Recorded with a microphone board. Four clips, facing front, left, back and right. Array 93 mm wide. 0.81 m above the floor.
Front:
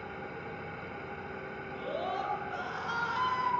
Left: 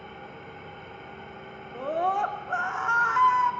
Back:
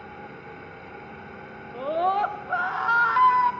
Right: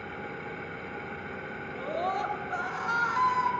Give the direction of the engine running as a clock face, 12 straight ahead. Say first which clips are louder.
Right 4 dB, back 1 dB; 3 o'clock.